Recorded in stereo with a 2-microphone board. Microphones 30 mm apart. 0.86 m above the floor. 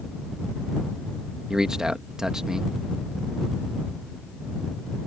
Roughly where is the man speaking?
Right.